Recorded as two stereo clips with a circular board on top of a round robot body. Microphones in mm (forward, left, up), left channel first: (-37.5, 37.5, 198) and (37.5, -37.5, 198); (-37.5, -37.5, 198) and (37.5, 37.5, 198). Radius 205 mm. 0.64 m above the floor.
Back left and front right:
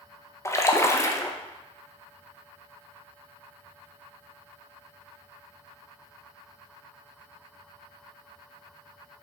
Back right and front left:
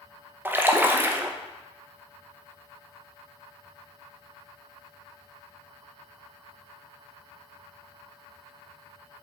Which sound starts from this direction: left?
A splash, at 0.5 s.